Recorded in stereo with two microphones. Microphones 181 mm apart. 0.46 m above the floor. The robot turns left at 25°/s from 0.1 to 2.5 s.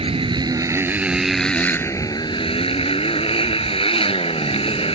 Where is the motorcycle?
150° right; by 5.0 s 150° left.